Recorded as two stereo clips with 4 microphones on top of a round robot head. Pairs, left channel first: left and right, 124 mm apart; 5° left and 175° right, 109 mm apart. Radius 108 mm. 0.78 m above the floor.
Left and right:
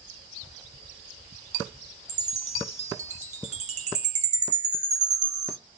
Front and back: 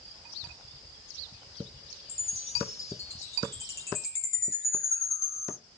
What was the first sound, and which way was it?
A chime, 65° right.